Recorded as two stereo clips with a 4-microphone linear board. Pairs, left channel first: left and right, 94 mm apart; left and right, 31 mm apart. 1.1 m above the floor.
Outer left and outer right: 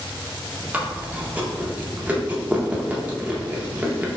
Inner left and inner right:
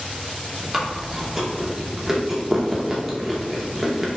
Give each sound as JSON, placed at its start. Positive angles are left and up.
{"t": 0.7, "sound": "chewing", "side_deg": -15, "distance_m": 0.6}